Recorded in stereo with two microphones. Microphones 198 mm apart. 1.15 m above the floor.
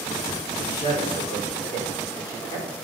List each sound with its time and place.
0.6 s a man speaking: 20° left (ahead or behind), 4 m